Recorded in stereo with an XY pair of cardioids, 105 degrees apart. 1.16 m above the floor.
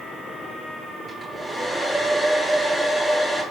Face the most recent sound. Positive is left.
turn(degrees=10)